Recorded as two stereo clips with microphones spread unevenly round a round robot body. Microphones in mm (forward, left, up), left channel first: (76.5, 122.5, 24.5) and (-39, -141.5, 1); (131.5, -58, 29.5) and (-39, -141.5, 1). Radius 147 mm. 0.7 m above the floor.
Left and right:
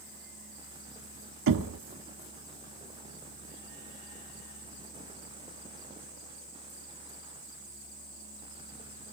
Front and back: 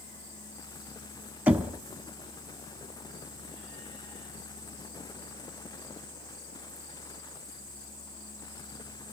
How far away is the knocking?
About 1.3 m.